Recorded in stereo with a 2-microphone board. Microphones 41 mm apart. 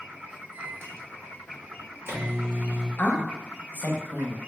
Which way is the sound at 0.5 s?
70° right (ahead or behind).